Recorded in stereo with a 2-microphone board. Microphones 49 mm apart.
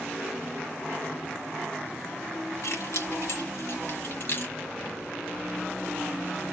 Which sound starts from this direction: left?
Keys jangling, at 2.6 s.